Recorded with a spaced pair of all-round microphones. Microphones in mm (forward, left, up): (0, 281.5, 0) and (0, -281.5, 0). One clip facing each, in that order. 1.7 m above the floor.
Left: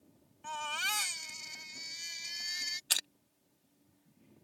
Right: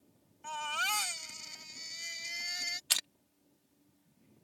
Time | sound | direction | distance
0.4 | a baby crying | 5° right (ahead or behind) | ?
2.9 | crushing | 25° right (ahead or behind) | ?